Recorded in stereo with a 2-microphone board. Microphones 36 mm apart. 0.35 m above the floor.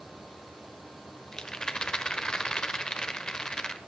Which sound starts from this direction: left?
A rattle, at 1.3 s.